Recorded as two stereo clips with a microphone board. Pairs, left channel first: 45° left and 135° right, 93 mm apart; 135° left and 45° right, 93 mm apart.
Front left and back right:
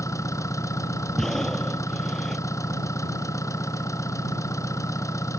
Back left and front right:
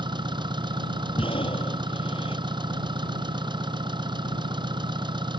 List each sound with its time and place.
0.0 s an engine running: 10° right
1.2 s breathing: 130° left